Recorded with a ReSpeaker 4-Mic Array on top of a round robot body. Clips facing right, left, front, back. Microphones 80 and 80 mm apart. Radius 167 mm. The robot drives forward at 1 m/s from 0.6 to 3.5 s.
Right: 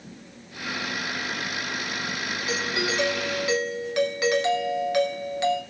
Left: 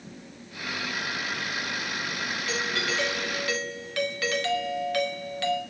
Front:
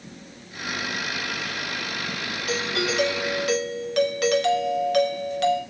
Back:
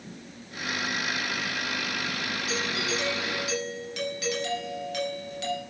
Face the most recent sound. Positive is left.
turn(degrees=-20)